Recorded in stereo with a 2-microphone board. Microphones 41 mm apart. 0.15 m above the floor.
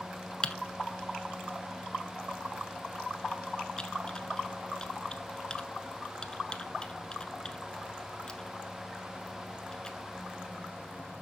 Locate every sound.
0.4 s typing on a keyboard: 20° left (ahead or behind), 0.9 m